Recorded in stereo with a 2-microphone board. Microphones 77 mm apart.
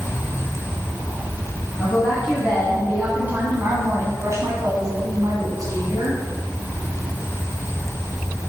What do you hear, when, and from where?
1.8 s a woman speaking: 5° right (ahead or behind), 3 m; by 6.2 s 55° right (ahead or behind), 2.5 m